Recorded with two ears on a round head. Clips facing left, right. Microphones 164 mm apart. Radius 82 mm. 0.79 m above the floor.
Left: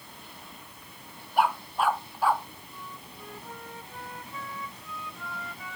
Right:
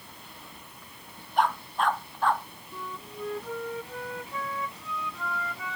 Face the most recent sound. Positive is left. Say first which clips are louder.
# right 9 dB
turn(degrees=-60)  # may be behind; listen again after turning